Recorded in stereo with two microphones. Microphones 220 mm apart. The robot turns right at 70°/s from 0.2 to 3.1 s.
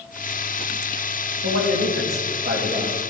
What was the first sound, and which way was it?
A man speaking, 115° right.